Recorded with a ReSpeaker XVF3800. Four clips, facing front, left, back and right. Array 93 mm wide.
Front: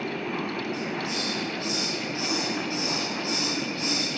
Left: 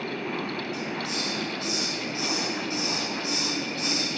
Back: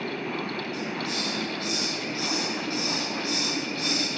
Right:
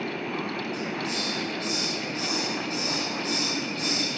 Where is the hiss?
165° left, 1.3 m.